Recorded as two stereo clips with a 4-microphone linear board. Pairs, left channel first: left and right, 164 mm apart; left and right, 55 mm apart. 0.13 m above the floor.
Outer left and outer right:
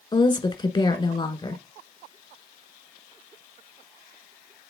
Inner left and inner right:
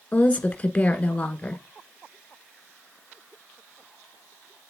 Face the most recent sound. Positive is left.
turn(degrees=30)  # may be behind; listen again after turning